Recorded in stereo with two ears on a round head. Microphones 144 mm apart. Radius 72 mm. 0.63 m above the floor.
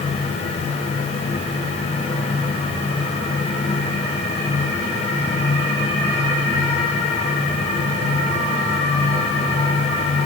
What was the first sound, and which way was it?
Only background noise.